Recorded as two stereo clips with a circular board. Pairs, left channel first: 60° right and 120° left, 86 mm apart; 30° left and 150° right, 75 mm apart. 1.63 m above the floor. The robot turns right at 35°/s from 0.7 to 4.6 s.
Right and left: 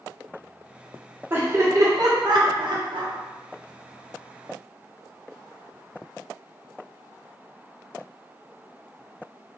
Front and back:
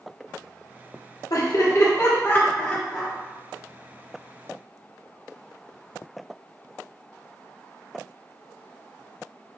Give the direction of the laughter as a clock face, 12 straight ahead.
10 o'clock.